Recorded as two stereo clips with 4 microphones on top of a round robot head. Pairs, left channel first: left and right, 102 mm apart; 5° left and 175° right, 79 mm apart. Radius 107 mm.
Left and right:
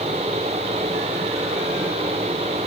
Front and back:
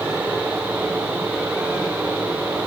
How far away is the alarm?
I don't hear an alarm.